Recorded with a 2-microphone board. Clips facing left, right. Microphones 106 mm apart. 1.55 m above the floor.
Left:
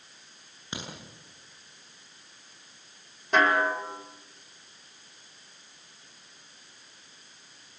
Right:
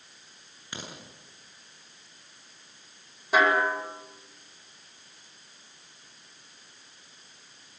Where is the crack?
20° left (ahead or behind), 9.5 m.